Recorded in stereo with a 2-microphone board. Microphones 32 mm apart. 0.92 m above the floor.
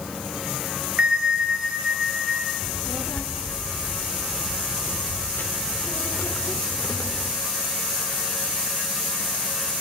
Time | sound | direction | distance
1.0 | a bell | 35° right (ahead or behind) | 3.5 m
2.6 | a child speaking | 60° left (ahead or behind) | 2 m